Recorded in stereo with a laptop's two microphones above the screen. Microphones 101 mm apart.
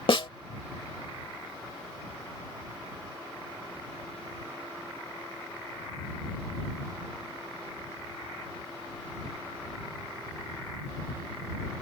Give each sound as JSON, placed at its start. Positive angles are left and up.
{"t": 0.1, "sound": "a snare drum", "side_deg": 55}